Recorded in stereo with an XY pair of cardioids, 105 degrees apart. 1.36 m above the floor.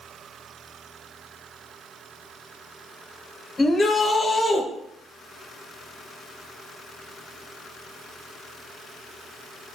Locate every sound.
3.6 s a shout: 35° left, 0.9 m